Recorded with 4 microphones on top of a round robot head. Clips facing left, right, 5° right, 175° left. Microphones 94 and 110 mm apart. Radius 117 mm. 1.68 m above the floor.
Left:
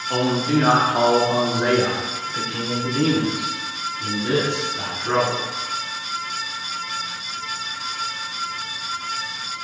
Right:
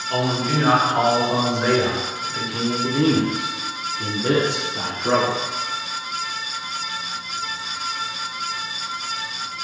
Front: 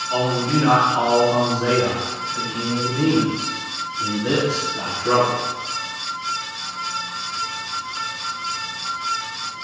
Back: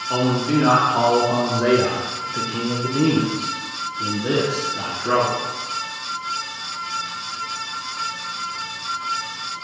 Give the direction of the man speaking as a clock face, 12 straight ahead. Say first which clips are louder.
Left 2 dB, back 1 dB; 7 o'clock.